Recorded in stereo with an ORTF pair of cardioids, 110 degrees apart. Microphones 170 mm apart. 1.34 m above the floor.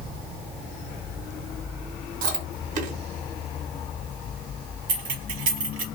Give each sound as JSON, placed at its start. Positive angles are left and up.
{"t": 2.2, "sound": "chewing", "azimuth_deg": -60, "distance_m": 1.4}
{"t": 4.9, "sound": "keys jangling", "azimuth_deg": -55, "distance_m": 1.1}